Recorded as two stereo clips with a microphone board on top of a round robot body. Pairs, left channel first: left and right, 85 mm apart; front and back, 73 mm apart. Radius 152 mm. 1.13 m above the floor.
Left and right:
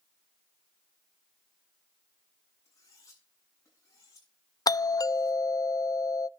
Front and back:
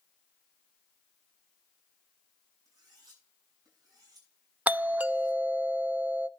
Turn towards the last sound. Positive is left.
turn(degrees=120)